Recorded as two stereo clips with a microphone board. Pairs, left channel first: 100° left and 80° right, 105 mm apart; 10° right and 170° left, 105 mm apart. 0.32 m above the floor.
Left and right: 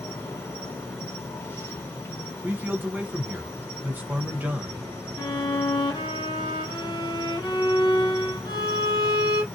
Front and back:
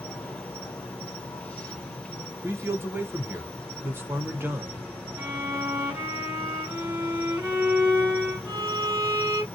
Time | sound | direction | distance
0.0 | an insect | 55° left | 1.1 m
2.4 | a man speaking | 140° right | 1.0 m
5.2 | a violin | 105° left | 1.9 m